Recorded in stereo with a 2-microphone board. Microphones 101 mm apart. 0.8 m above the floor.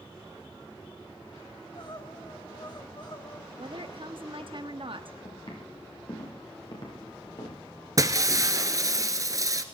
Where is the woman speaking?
55° right (ahead or behind), 1.0 m.